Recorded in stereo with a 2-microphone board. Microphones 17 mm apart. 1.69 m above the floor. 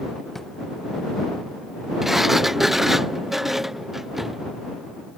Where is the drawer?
20° left (ahead or behind).